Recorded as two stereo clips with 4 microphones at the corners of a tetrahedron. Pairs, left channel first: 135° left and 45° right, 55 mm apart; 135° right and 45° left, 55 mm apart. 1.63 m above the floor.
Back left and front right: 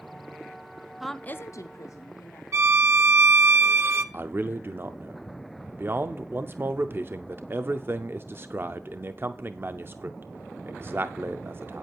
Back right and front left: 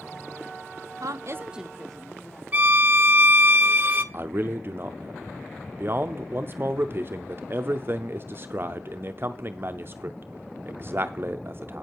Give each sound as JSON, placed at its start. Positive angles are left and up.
{"t": 1.0, "sound": "a woman speaking", "azimuth_deg": 40, "distance_m": 0.6}
{"t": 2.5, "sound": "a violin", "azimuth_deg": -15, "distance_m": 0.7}
{"t": 4.1, "sound": "a man speaking", "azimuth_deg": 0, "distance_m": 0.5}